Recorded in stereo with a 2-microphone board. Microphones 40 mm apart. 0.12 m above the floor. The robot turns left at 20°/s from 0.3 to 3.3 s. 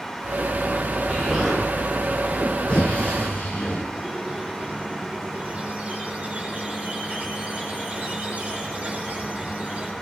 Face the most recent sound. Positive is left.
turn(degrees=-35)  # may be behind; listen again after turning